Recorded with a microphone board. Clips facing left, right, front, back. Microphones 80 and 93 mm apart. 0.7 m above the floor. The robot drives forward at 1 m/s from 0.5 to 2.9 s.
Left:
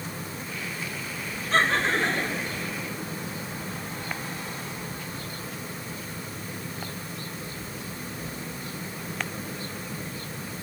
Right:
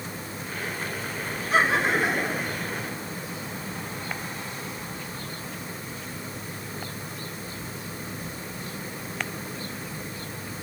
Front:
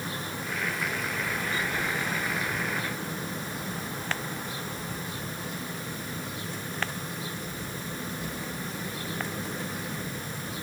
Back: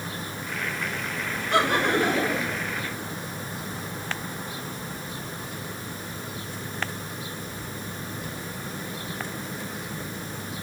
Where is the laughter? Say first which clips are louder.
Right 1 dB, back 14 dB; 170° right.